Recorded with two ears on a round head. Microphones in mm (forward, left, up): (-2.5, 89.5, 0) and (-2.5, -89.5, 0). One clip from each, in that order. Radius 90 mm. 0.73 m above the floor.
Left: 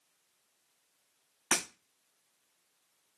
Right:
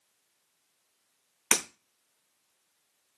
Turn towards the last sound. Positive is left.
turn(degrees=-25)  # may be behind; listen again after turning